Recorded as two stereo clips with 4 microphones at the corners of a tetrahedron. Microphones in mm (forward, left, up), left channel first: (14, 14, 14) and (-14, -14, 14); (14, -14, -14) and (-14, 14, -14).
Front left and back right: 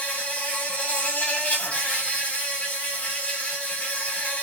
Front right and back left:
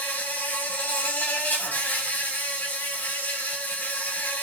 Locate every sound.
0.0 s an insect: 10° right, 4 m